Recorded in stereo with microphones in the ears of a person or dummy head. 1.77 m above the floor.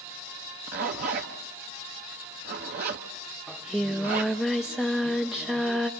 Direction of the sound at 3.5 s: 5° right (ahead or behind).